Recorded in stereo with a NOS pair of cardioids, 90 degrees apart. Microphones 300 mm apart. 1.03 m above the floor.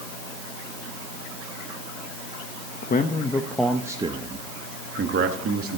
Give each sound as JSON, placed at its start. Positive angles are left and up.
{"t": 2.8, "sound": "a man speaking", "azimuth_deg": 35, "distance_m": 1.0}